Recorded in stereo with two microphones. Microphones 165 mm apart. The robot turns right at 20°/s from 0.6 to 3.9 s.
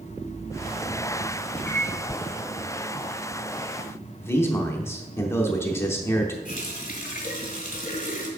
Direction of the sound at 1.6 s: 10° left (ahead or behind).